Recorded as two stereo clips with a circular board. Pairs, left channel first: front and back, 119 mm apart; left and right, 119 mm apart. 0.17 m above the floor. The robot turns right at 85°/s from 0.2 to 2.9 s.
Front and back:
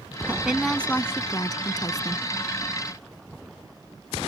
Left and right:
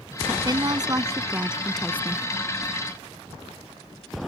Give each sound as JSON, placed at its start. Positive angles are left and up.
{"t": 0.3, "sound": "a woman speaking", "azimuth_deg": -120}